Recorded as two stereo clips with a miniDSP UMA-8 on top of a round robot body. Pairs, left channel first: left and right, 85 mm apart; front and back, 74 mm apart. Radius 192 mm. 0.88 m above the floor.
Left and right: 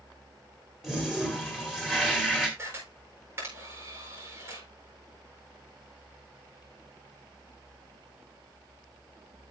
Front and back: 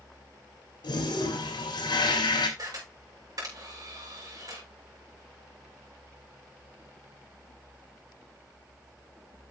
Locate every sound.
0.8 s a toilet flushing: 5° right, 3.5 m
2.6 s a camera shutter: 150° right, 6.5 m